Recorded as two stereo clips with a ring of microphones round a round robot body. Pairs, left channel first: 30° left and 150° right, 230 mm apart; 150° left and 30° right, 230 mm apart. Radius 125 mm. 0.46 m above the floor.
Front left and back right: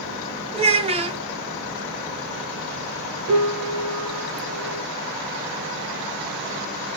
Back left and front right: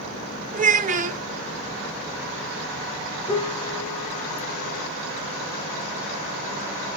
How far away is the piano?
About 1.0 m.